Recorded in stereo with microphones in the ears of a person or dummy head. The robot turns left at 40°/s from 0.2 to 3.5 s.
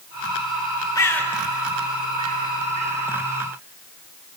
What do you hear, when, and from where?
0.9 s a bird: 20° left (ahead or behind), 2.5 m; by 3.1 s 65° right (ahead or behind), 2.5 m